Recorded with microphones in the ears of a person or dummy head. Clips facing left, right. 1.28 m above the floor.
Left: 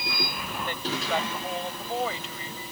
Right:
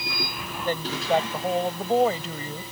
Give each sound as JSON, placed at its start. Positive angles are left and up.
{"t": 0.7, "sound": "a woman speaking", "side_deg": -30}